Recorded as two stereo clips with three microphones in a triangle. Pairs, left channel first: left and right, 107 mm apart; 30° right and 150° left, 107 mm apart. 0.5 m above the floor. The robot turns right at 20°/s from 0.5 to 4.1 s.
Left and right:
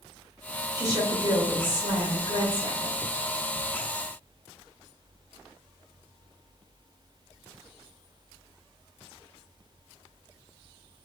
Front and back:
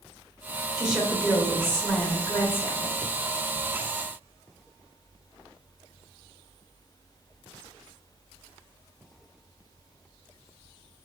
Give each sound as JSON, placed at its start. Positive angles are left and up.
{"t": 0.8, "sound": "a woman speaking", "azimuth_deg": -130, "distance_m": 1.6}